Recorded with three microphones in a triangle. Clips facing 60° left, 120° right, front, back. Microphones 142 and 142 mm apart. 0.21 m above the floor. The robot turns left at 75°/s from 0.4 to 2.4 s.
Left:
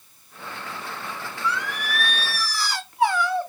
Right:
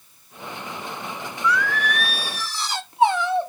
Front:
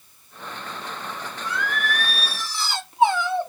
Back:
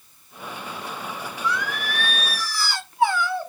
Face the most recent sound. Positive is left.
turn(degrees=-60)